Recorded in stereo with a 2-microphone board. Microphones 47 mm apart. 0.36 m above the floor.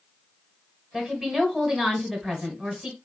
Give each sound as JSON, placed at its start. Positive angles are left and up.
{"t": 0.9, "sound": "a woman speaking", "side_deg": -5, "distance_m": 1.7}